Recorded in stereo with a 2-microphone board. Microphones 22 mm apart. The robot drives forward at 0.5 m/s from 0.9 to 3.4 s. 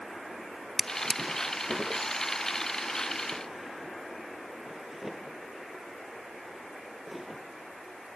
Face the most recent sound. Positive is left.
turn(degrees=-5)  # may be behind; listen again after turning